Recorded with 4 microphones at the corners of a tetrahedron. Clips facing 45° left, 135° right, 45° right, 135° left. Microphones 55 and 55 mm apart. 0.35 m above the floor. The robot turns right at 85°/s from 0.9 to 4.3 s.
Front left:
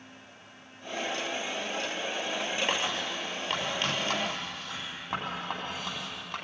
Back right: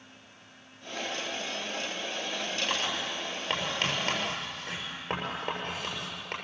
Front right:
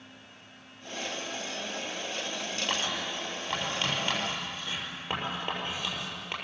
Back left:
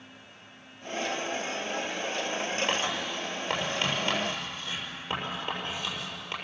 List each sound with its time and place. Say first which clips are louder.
2.7 s writing: front left 1 dB, back left 2 dB; 105° left, 7 m; by 6.3 s 115° right, 7 m